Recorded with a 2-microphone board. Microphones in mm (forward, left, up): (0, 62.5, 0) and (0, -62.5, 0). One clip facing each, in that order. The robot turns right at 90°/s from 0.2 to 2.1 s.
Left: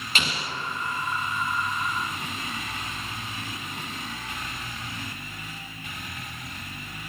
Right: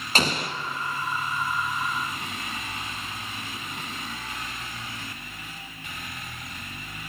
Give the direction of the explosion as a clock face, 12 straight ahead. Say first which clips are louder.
Right 5 dB; 4 o'clock.